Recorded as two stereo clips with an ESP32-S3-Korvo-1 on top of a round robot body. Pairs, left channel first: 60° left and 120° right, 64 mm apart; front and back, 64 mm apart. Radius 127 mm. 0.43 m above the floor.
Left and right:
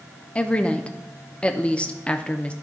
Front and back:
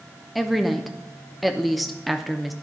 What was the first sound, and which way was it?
A woman speaking, 85° left.